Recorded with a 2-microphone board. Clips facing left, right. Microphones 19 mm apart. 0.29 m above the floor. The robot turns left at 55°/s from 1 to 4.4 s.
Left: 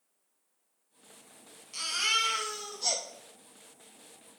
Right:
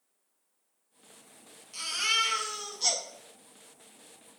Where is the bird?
No bird in this recording.